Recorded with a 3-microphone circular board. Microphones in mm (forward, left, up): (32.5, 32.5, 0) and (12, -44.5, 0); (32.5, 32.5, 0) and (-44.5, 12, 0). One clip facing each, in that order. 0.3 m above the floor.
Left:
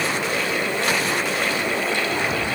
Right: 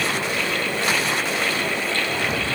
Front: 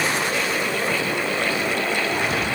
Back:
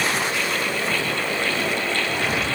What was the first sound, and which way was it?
Only background noise.